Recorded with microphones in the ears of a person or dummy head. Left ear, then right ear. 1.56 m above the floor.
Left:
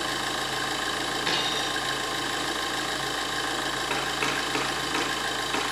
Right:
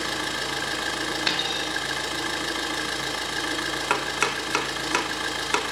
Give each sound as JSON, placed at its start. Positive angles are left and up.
{"t": 0.0, "sound": "an engine running", "side_deg": 10, "distance_m": 0.7}
{"t": 1.3, "sound": "a dropped coin", "side_deg": -15, "distance_m": 1.3}
{"t": 3.9, "sound": "chopping", "side_deg": -30, "distance_m": 0.6}